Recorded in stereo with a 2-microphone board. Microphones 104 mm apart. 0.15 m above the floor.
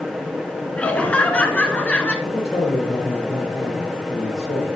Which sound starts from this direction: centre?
Laughter, at 0.8 s.